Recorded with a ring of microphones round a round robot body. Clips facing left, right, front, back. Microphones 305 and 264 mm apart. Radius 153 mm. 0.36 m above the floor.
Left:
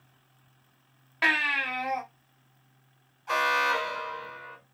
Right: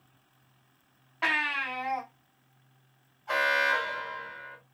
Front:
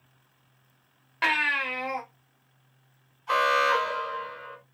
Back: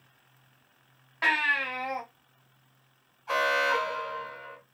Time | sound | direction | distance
1.2 | a baby crying | 45° left | 1.4 m
3.3 | an alarm | 45° left | 2.5 m